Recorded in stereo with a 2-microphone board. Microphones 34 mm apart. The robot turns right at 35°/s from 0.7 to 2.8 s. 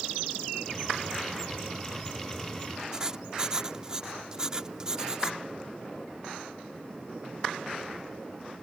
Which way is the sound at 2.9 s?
20° right (ahead or behind).